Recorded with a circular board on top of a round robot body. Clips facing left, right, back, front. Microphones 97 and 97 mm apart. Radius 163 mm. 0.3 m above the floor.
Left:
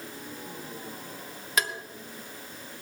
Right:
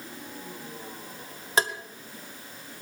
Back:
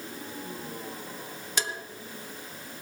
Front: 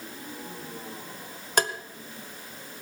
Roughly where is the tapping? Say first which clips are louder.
Right 4 dB, front 7 dB; ahead right.